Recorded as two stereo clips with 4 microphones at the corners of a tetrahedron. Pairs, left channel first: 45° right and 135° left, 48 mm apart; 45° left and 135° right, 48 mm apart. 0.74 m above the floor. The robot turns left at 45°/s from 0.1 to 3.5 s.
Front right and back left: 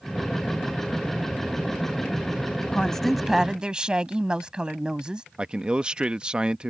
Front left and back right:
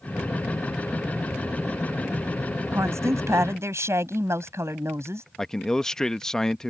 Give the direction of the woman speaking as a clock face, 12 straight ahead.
4 o'clock.